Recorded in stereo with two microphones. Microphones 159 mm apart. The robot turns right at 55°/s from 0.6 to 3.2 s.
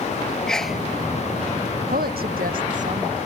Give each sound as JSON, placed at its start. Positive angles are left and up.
{"t": 0.5, "sound": "a sneeze", "side_deg": 5}
{"t": 1.9, "sound": "a woman speaking", "azimuth_deg": -105}